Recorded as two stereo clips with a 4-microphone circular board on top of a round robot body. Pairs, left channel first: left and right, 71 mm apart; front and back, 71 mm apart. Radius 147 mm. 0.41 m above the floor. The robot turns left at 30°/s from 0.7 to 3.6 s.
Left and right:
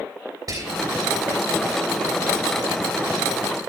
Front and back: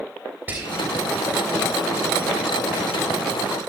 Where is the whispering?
115° right, 3.5 m; by 0.9 s 125° right, 3.5 m.